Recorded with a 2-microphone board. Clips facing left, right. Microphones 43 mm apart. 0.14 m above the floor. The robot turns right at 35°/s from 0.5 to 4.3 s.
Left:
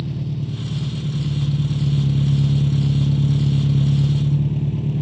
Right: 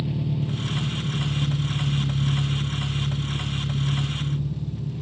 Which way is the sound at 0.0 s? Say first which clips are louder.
Even; 15° right.